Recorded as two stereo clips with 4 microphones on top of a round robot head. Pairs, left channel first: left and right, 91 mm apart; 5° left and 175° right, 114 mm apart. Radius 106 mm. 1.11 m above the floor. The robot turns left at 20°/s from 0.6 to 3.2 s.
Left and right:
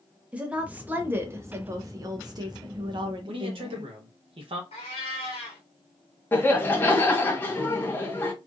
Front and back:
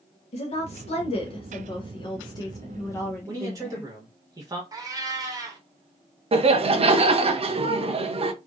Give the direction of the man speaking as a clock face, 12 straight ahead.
4 o'clock.